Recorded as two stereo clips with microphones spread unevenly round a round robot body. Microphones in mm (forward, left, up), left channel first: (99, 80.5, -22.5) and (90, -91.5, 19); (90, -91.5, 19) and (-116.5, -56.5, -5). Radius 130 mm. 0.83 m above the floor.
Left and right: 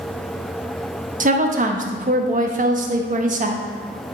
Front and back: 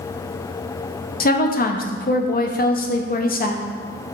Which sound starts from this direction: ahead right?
A woman speaking, at 1.2 s.